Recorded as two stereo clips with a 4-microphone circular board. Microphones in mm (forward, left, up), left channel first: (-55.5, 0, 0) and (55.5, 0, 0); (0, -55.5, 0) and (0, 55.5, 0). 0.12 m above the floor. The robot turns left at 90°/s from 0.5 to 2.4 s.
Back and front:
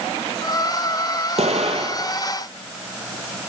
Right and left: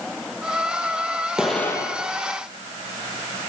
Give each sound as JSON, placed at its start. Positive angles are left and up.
{"t": 1.4, "sound": "an explosion", "azimuth_deg": 10, "distance_m": 1.5}